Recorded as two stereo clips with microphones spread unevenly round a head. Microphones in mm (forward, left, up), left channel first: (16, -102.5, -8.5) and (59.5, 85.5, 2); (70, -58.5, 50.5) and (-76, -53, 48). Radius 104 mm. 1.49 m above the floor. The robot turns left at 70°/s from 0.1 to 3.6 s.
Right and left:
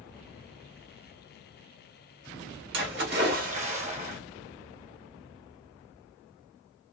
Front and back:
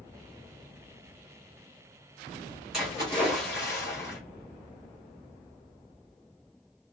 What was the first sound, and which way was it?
A splash, 90° left.